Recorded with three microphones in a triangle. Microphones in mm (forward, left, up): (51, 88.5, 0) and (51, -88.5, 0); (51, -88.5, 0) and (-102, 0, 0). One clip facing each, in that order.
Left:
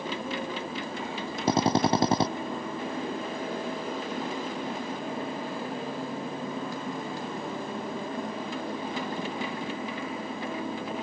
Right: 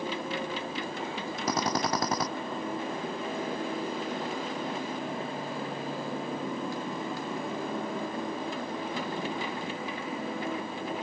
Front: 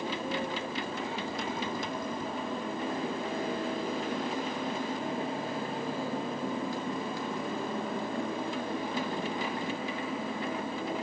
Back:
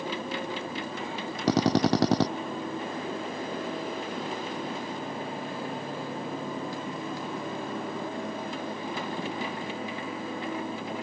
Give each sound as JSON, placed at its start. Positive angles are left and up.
{"t": 1.5, "sound": "a drill", "azimuth_deg": 150}